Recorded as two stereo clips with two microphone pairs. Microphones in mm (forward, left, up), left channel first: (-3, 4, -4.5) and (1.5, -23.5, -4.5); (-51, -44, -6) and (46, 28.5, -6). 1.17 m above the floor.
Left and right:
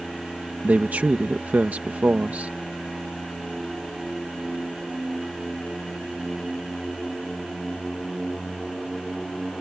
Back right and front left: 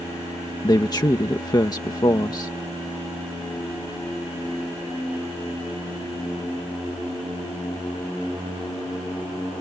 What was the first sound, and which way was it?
A man speaking, 90° right.